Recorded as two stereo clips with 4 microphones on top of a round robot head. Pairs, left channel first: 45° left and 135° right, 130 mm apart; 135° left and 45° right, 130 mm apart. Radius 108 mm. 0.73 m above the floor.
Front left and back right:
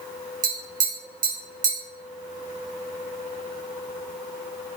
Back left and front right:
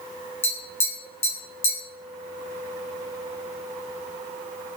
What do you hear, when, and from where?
0.4 s tapping: 150° right, 1.0 m